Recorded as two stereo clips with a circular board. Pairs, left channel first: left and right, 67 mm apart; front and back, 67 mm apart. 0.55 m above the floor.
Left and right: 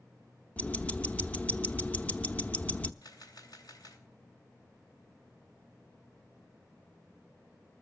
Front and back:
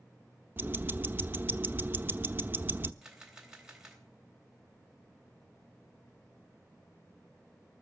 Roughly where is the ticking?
Behind left.